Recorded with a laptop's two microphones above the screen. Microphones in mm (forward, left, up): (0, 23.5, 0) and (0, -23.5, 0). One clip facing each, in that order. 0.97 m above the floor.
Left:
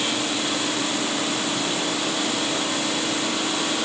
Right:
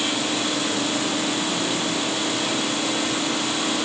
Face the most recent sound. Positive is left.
No sound to turn to.